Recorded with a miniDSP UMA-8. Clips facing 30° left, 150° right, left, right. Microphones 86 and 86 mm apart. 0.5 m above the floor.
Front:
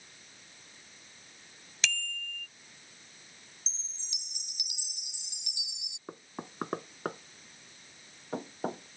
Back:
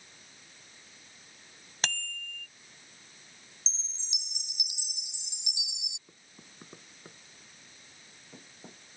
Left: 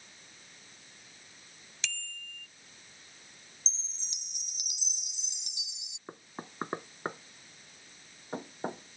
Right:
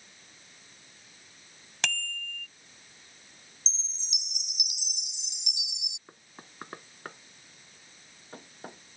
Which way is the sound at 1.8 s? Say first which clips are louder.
Even, right 8 dB; 110° right.